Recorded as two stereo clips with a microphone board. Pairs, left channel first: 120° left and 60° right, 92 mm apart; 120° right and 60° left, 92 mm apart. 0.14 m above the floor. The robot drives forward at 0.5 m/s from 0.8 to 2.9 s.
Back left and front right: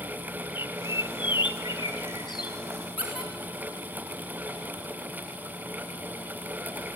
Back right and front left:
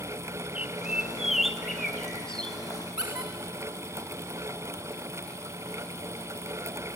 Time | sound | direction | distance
0.6 | a bird | 135° left | 0.8 m
3.0 | a squeak | 140° left | 4 m